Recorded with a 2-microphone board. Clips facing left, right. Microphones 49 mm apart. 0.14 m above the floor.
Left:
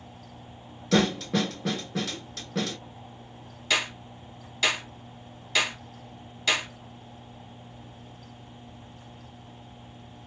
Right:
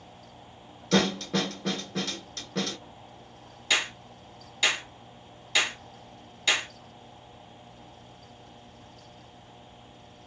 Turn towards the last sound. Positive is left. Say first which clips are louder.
# even
turn(degrees=0)  # may be behind; listen again after turning